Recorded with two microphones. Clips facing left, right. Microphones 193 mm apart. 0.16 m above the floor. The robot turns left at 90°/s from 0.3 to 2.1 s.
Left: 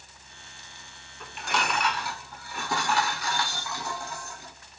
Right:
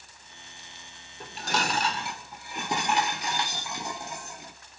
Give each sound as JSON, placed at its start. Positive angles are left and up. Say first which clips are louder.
{"t": 1.2, "sound": "dishes clattering", "louder": "right 1 dB", "azimuth_deg": -65, "distance_m": 0.9}